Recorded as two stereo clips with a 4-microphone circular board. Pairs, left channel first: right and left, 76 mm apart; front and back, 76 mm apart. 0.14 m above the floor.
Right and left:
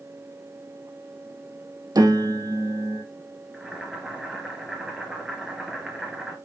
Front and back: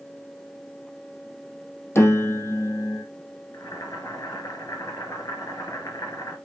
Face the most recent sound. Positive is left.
turn(degrees=10)